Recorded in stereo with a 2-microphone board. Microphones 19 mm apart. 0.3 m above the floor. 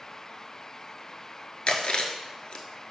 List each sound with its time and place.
1.7 s chewing: 70° left (ahead or behind), 0.8 m